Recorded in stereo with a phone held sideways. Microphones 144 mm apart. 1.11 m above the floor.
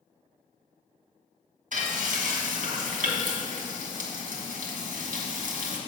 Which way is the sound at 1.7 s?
60° right (ahead or behind).